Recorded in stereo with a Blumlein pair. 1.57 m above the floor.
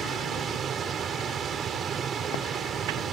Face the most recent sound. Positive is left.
turn(degrees=-25)